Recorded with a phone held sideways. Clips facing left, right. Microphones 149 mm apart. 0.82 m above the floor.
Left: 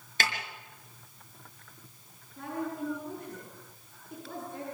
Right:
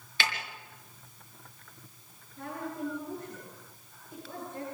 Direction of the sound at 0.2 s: 45° left (ahead or behind).